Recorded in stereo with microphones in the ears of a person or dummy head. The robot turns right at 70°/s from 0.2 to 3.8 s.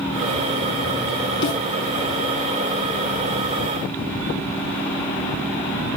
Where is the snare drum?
65° left (ahead or behind), 3 m; by 1.6 s 75° left (ahead or behind), 3 m.